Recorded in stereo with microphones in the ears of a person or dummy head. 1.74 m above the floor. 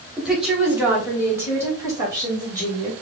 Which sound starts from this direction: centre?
A woman speaking, at 0.2 s.